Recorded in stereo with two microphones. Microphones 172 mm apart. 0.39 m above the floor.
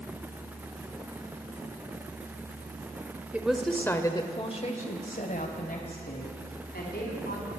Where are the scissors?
No scissors in this recording.